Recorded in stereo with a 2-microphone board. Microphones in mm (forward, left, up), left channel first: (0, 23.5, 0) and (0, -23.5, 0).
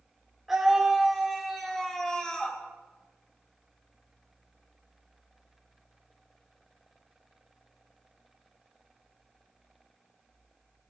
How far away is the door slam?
No door slam in this recording.